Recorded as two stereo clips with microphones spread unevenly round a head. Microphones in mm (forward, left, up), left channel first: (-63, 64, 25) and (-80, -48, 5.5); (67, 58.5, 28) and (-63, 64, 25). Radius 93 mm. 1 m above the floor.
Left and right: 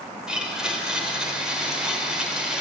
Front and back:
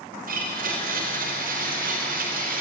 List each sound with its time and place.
0.3 s a blender: straight behind, 4.5 m